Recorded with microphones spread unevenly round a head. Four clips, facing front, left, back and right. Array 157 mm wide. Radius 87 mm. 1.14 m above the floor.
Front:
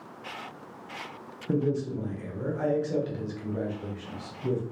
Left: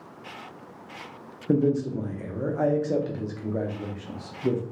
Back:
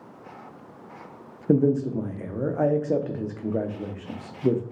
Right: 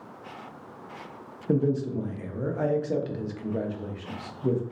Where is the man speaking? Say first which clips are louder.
Left 2 dB, back 7 dB; 170° left, 0.6 m.